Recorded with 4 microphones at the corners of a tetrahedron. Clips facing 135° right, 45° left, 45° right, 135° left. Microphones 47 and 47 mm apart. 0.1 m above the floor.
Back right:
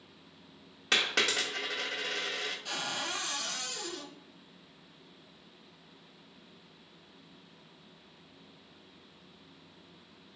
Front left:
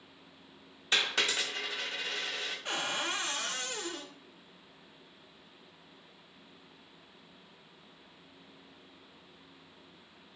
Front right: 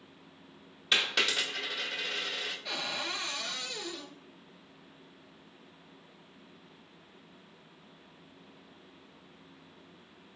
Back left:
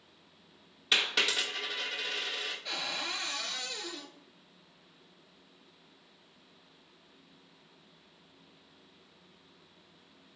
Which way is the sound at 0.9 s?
135° right.